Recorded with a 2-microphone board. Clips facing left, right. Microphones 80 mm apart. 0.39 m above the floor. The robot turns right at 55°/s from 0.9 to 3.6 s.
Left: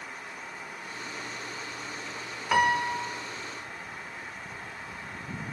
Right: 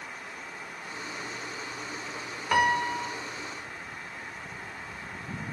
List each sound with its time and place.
2.5 s a piano: centre (ahead or behind), 1.3 m; by 3.2 s 15° left (ahead or behind), 1.3 m